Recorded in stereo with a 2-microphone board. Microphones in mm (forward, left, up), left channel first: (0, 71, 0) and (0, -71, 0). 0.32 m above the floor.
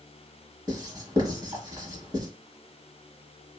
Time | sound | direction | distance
0.7 | writing | 25° right (ahead or behind) | 1.0 m